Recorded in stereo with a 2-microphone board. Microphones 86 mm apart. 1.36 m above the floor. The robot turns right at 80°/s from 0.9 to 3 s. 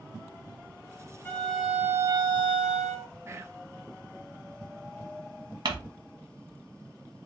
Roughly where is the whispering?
Right.